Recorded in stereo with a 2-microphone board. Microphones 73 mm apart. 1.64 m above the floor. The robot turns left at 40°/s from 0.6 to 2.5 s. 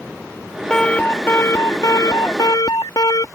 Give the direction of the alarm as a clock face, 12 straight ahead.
6 o'clock.